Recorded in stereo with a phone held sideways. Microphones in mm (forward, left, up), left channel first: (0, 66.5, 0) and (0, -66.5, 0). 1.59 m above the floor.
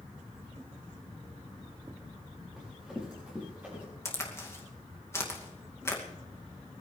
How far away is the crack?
About 2.5 m.